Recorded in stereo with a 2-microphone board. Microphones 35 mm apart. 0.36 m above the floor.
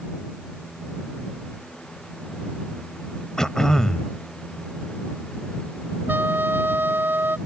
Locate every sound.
3.4 s throat clearing: 15° left (ahead or behind)
6.1 s a trumpet: 80° right